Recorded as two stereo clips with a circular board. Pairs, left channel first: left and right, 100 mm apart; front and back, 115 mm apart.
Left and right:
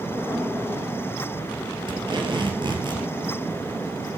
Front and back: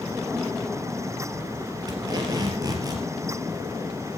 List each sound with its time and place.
1.9 s tape being pulled: 125° right, 3 m